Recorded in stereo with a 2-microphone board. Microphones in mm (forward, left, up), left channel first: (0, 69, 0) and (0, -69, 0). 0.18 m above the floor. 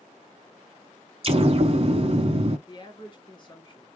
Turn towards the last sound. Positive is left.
turn(degrees=35)  # may be behind; listen again after turning